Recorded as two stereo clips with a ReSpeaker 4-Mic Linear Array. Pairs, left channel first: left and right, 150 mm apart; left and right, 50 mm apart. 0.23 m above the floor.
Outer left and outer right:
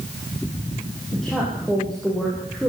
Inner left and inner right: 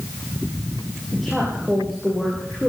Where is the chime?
No chime in this recording.